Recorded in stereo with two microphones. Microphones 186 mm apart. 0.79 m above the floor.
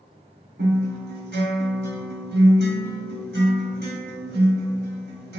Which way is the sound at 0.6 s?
70° right (ahead or behind).